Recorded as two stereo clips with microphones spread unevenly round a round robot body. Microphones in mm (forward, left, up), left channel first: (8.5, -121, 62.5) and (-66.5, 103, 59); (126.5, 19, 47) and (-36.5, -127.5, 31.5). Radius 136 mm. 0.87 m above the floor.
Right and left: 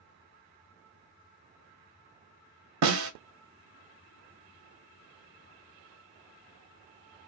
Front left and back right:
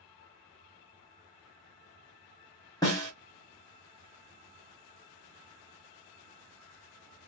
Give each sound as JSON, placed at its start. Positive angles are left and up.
{"t": 2.8, "sound": "a snare drum", "azimuth_deg": 120, "distance_m": 0.8}